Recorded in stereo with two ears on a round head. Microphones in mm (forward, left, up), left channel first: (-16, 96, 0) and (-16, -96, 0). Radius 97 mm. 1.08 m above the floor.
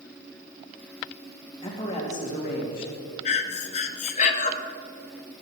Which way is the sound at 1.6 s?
25° left (ahead or behind).